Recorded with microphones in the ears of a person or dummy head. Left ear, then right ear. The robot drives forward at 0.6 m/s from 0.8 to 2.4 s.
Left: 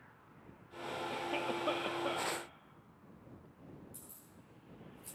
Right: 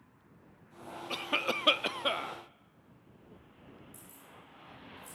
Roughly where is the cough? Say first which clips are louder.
Right 8 dB; right.